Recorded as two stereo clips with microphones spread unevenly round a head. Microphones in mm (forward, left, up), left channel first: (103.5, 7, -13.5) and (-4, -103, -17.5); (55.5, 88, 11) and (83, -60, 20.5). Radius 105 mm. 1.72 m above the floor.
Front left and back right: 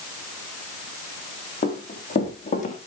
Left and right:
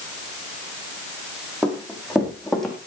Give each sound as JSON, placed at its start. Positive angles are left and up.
{"t": 1.6, "sound": "running footsteps", "azimuth_deg": 5, "distance_m": 5.5}